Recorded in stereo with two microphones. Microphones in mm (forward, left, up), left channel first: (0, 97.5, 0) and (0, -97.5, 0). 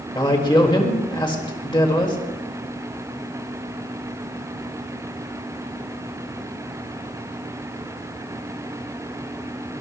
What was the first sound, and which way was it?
A man speaking, 25° left (ahead or behind).